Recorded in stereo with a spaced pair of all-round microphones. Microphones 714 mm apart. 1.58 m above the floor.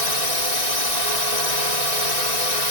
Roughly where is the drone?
Left.